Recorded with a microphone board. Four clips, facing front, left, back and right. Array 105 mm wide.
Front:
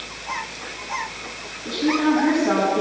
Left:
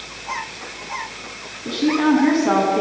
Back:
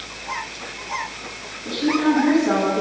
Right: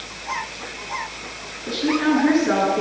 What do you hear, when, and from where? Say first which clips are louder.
1.6 s a woman speaking: left 3 dB, even; 85° left, 8 m